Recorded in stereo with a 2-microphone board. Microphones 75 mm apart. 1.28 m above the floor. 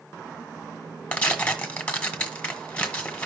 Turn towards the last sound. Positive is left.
turn(degrees=20)  # may be behind; listen again after turning